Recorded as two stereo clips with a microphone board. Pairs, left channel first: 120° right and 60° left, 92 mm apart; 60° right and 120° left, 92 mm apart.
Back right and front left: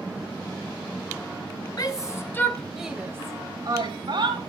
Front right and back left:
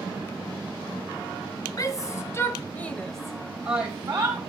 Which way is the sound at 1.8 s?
95° right.